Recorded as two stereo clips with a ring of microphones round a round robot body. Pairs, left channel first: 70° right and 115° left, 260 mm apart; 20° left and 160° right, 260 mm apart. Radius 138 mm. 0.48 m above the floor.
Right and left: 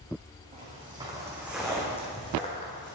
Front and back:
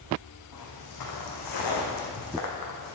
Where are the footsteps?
45° left, 2.5 m; by 2.9 s 10° right, 2 m.